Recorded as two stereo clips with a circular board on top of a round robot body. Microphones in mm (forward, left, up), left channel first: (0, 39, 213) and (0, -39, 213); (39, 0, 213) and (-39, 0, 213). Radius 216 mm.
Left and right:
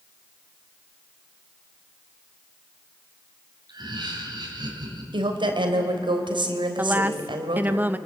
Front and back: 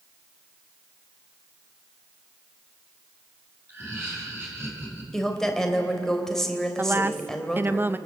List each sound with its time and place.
3.7 s laughter: 120° right, 7.5 m
5.1 s a woman speaking: 85° right, 3.5 m
6.8 s a woman speaking: 140° right, 1.1 m